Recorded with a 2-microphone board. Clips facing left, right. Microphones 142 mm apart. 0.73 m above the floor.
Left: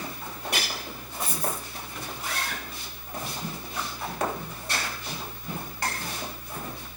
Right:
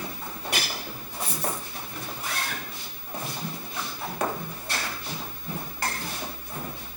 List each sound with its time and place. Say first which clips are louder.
1.2 s a dropped coin: even; 75° right (ahead or behind), 1.6 m